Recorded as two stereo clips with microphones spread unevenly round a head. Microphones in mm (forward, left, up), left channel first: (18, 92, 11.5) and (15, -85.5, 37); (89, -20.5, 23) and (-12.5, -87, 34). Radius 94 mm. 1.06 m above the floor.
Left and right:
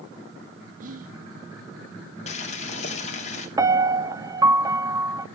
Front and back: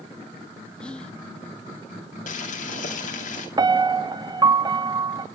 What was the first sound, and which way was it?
Whispering, 45° right.